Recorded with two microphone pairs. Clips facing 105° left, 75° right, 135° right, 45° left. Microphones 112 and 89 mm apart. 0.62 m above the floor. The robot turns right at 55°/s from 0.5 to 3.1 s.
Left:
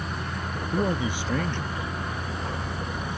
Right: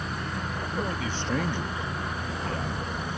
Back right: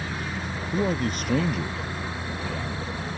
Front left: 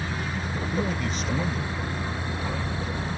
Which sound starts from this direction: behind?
A man speaking, at 0.7 s.